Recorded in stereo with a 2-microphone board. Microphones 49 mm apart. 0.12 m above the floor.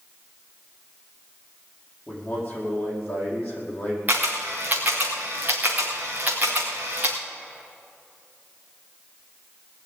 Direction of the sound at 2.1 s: 30° left (ahead or behind).